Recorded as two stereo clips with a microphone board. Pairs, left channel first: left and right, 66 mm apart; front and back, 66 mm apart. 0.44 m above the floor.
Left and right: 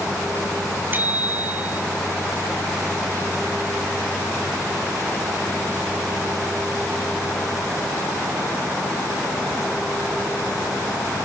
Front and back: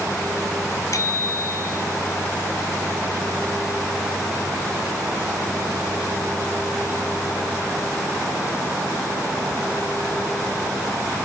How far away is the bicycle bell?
About 2.5 m.